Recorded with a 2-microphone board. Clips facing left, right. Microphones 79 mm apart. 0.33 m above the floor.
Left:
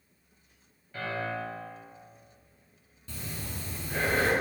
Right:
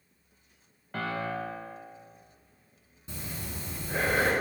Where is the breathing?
20° right (ahead or behind), 1.4 m.